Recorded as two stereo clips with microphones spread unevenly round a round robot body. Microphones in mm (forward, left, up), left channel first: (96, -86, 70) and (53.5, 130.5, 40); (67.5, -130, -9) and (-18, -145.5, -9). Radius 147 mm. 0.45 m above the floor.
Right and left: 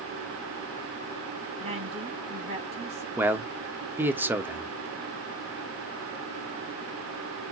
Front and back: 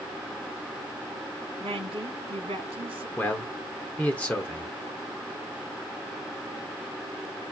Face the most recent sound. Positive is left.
turn(degrees=55)